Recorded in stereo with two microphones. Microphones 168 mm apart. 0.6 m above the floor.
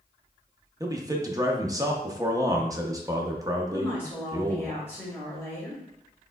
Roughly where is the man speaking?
Right.